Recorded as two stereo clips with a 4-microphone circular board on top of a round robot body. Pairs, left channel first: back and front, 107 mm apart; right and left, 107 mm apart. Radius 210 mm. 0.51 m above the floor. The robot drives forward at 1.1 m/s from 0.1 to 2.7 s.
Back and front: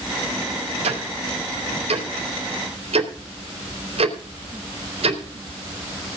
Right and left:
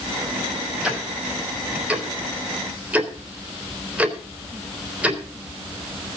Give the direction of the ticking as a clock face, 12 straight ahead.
12 o'clock.